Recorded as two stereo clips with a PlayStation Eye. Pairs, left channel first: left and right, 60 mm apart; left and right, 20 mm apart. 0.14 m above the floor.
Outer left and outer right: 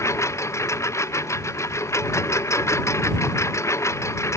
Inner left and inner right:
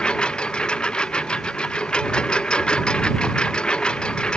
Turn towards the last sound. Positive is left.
turn(degrees=50)  # may be behind; listen again after turning